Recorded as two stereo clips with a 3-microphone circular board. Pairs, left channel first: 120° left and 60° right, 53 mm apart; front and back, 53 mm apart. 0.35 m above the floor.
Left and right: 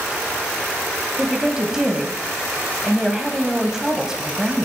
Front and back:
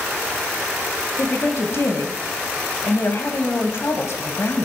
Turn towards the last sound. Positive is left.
turn(degrees=20)